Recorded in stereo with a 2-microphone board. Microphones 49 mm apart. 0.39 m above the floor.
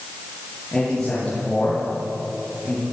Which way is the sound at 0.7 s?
10° left (ahead or behind).